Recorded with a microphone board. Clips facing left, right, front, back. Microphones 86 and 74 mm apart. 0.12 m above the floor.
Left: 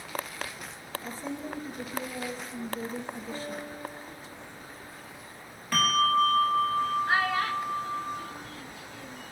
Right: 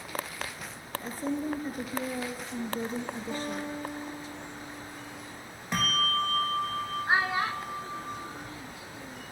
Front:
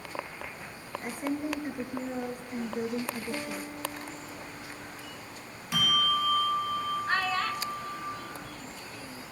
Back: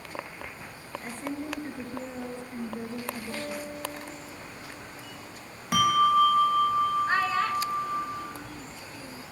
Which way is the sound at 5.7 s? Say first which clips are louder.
Left 5 dB, back 8 dB; 155° right.